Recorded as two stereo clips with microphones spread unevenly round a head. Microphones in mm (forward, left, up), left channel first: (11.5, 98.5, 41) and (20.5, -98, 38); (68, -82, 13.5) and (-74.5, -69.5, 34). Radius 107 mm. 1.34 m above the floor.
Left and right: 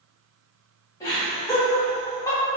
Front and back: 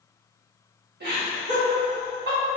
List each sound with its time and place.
1.0 s laughter: 165° left, 1.6 m